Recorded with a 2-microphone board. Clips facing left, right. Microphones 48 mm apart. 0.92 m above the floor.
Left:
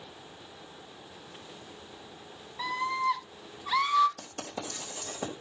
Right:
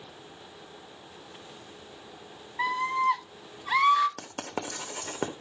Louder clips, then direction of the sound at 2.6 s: Right 4 dB; 40° right (ahead or behind).